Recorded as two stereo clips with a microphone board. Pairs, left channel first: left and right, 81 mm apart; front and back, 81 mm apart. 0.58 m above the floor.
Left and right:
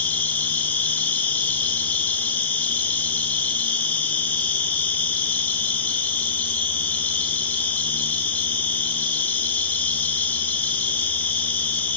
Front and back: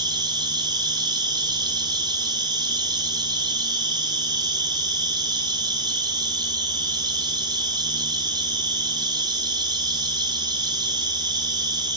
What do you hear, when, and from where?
0.0 s an insect: 155° left, 0.8 m